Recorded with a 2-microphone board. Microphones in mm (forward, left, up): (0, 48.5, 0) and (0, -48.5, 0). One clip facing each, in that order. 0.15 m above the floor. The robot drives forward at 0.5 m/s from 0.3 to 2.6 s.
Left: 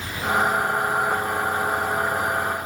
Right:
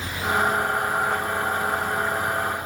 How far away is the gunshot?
No gunshot in this recording.